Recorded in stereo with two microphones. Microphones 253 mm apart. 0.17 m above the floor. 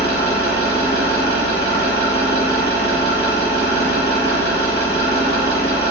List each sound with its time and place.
0.0 s an engine running: 45° left (ahead or behind), 1.0 m